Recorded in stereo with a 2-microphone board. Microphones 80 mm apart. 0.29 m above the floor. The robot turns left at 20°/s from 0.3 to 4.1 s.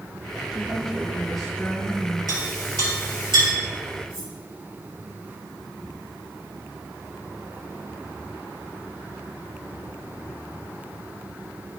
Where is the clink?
55° right (ahead or behind), 4 m; by 3.5 s 80° right, 4 m.